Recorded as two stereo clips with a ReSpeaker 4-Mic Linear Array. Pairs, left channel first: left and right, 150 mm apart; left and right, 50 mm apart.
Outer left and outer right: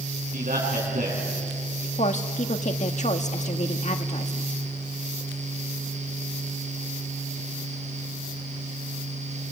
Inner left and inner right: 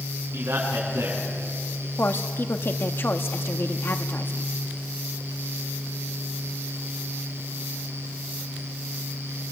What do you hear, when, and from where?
0.3 s a man speaking: 75° right (ahead or behind), 8 m
2.0 s a woman speaking: 55° left (ahead or behind), 1.4 m